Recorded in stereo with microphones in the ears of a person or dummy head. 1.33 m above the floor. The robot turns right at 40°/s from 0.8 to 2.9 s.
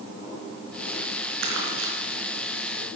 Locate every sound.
1.4 s crumpling: 70° right (ahead or behind), 5.5 m; by 1.9 s 80° right, 5.5 m